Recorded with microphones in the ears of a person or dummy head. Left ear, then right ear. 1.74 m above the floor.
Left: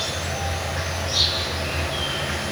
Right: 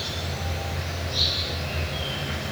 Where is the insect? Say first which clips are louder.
Left 5 dB; 35° left (ahead or behind), 2.5 m.